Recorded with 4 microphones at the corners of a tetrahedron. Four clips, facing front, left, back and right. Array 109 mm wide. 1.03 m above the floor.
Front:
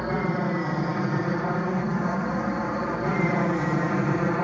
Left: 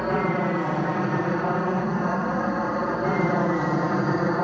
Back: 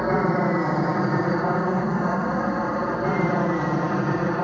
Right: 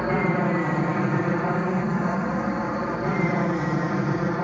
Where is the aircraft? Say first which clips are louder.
Right 1 dB, back 5 dB; 170° left; by 4.5 s 115° left.